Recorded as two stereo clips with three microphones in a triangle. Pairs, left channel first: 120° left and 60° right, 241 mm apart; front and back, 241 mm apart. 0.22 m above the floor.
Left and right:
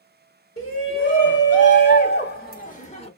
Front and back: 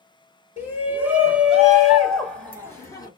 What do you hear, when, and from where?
0.6 s a shout: 100° left, 3 m; by 3.1 s 65° left, 1.7 m